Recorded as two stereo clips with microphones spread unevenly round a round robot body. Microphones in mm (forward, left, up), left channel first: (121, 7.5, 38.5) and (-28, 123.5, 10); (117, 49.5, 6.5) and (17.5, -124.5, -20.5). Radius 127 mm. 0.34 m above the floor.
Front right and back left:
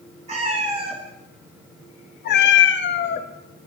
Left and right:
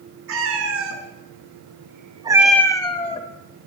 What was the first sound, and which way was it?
A cat meowing, 155° right.